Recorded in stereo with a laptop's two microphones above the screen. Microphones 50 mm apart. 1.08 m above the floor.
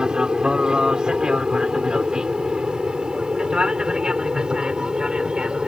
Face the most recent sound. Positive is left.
turn(degrees=-20)  # may be behind; listen again after turning